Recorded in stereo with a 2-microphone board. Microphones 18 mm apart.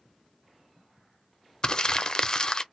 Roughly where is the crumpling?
Left.